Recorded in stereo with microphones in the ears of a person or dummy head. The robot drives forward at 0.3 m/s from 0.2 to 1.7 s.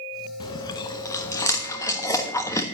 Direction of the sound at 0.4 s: 25° left (ahead or behind).